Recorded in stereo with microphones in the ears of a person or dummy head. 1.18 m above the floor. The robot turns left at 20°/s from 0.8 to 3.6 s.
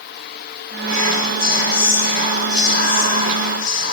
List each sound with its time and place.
0.9 s whispering: 150° left, 3 m; by 3.9 s 95° left, 3 m